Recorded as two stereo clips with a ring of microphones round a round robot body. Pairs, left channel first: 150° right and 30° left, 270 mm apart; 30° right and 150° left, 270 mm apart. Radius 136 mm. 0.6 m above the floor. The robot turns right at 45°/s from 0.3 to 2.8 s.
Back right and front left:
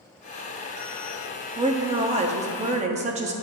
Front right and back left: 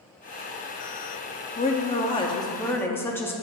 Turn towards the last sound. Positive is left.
turn(degrees=40)